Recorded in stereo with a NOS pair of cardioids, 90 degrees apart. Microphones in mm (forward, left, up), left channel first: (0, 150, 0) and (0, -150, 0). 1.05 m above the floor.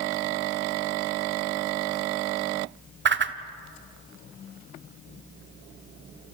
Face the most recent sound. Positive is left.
turn(degrees=-40)